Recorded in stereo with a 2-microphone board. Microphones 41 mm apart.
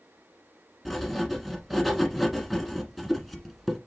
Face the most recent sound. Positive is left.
turn(degrees=0)  # may be behind; listen again after turning